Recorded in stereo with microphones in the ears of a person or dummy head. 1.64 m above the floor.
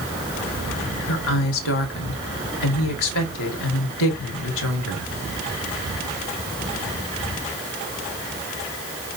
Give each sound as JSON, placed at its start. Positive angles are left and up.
{"t": 1.1, "sound": "a woman speaking", "side_deg": 75, "distance_m": 1.3}